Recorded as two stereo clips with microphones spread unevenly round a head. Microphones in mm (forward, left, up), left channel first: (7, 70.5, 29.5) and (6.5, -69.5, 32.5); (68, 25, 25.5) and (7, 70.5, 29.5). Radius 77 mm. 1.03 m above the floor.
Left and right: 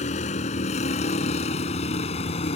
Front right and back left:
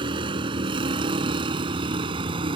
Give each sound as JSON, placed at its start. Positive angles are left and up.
{"t": 0.0, "sound": "a vehicle", "azimuth_deg": 135}